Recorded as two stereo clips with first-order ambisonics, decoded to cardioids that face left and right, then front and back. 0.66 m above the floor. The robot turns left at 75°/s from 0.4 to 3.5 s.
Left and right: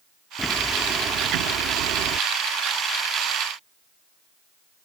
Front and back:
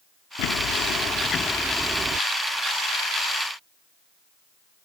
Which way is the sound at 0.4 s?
5° left.